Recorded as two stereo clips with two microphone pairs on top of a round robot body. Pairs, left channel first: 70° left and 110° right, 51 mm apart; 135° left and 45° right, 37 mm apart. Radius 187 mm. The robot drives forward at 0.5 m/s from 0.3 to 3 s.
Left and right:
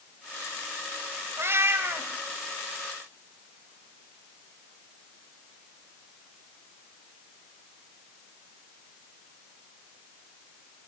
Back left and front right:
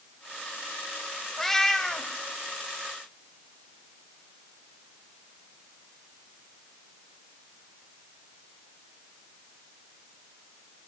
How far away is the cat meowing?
About 1.6 m.